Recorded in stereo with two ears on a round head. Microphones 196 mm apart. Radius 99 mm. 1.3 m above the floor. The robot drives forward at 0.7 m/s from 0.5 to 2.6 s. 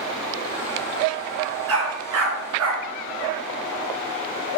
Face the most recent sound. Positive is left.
turn(degrees=-70)  # may be behind; listen again after turning